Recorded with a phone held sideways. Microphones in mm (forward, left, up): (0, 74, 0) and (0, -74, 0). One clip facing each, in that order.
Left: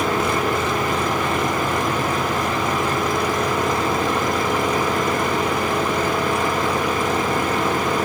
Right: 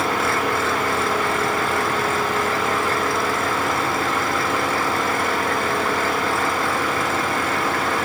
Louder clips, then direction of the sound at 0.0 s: Left 1 dB; 20° left (ahead or behind).